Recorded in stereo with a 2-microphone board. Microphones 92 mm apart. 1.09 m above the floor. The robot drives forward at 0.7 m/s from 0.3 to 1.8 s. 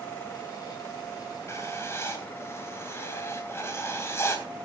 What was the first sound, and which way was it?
Writing, 30° left (ahead or behind).